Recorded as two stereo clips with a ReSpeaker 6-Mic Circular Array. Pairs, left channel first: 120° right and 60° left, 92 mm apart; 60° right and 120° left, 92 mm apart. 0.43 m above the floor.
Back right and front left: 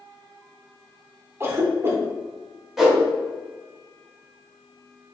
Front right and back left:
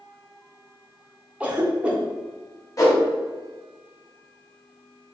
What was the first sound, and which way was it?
A cough, 60° left.